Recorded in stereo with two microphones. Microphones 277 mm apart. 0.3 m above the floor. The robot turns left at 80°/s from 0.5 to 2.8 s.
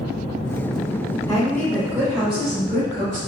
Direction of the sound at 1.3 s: 15° left (ahead or behind).